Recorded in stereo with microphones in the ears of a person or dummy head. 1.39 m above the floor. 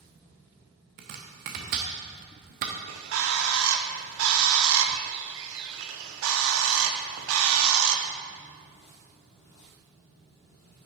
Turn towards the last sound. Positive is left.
turn(degrees=-80)